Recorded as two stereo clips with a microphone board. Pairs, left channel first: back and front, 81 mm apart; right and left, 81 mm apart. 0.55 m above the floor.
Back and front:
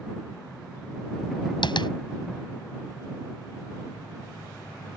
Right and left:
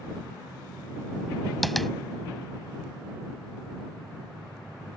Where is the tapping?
Straight behind.